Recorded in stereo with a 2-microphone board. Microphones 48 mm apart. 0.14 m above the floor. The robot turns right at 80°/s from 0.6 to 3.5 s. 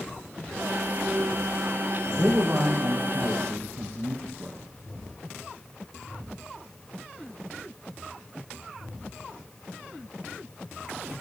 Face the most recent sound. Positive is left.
turn(degrees=-60)